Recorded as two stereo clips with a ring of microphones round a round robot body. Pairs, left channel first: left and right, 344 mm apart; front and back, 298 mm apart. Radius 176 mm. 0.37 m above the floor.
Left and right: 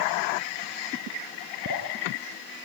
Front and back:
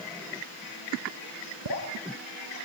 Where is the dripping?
150° right, 4.5 m.